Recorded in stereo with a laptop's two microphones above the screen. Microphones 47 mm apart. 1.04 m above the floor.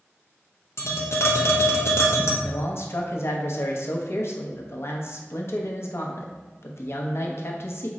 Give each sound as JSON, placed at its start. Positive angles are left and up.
{"t": 0.8, "sound": "tapping", "side_deg": 70, "distance_m": 0.7}
{"t": 2.4, "sound": "a man speaking", "side_deg": 65, "distance_m": 0.6}